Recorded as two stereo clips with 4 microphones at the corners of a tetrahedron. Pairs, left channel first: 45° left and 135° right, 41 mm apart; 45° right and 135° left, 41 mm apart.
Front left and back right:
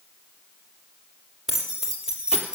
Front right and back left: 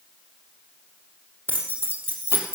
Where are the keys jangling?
145° left, 3.5 m; by 2.5 s 155° left, 3 m.